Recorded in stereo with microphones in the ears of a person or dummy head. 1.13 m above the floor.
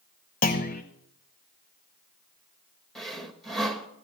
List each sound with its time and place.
0.4 s a clunk: 45° left (ahead or behind), 1.1 m
3.0 s sawing: centre (ahead or behind), 1.1 m